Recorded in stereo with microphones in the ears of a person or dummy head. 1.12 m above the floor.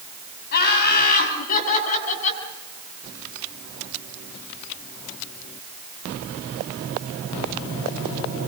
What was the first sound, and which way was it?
Laughter, 60° left (ahead or behind).